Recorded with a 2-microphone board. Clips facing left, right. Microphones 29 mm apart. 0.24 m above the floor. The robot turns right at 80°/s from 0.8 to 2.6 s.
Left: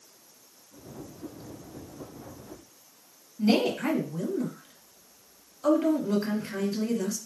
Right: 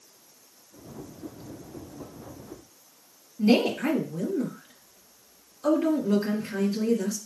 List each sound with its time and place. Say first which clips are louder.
3.4 s a woman speaking: right 2 dB; 10° left (ahead or behind), 1.2 m